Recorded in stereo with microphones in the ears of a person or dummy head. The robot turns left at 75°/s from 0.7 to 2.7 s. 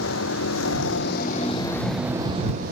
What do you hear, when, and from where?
0.0 s a vehicle: 90° left; by 2.7 s 60° right